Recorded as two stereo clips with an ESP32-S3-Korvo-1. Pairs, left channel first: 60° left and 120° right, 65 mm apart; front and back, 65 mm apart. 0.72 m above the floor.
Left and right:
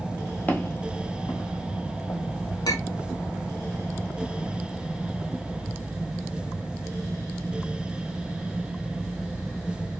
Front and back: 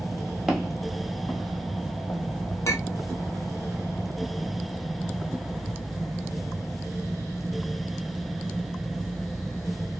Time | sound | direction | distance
0.5 | footsteps | 100° left | 0.8 m
2.6 | a clink | 45° left | 0.8 m